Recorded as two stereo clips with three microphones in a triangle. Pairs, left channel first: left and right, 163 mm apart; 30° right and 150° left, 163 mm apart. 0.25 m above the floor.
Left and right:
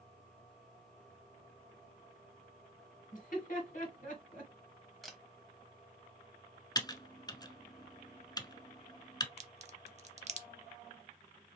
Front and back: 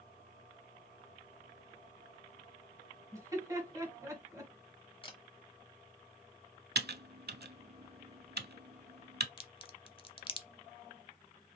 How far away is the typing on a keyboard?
About 0.5 m.